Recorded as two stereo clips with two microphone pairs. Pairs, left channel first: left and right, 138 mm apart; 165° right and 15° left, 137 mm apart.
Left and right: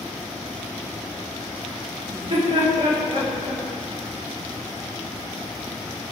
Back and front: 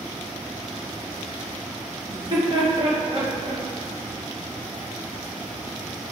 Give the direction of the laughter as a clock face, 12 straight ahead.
1 o'clock.